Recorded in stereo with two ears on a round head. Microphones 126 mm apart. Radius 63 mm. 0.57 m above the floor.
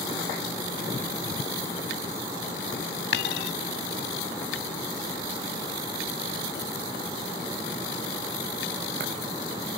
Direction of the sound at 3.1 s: 85° left.